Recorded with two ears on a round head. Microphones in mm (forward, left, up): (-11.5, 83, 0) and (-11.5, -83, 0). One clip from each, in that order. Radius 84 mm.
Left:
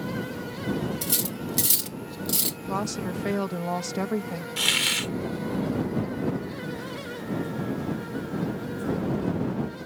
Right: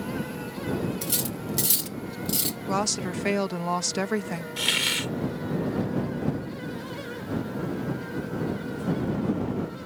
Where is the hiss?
15° left (ahead or behind).